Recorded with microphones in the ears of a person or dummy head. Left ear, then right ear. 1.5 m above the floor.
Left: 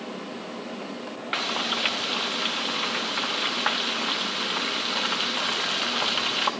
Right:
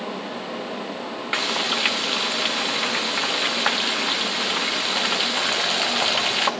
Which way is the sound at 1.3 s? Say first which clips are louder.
Right 4 dB; 10° right (ahead or behind).